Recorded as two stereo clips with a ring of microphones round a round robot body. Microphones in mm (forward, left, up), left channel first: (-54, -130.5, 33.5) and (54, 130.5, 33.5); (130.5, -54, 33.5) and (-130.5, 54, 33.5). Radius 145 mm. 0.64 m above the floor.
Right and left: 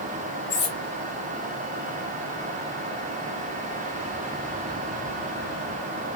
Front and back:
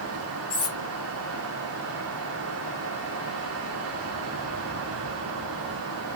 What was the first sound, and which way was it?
Cutlery clinking, 95° right.